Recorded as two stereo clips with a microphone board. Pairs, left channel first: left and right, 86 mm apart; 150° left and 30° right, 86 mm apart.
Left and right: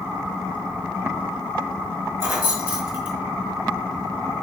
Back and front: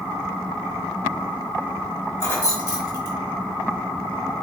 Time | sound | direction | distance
2.2 | keys jangling | 150° right | 1.5 m